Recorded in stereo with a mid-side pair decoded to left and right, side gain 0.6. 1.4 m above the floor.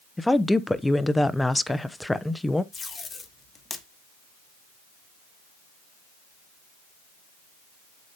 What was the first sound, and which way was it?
A woman speaking, 10° left.